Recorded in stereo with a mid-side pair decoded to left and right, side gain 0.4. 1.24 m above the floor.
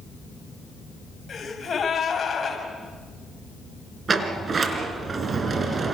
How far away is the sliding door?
About 3.5 m.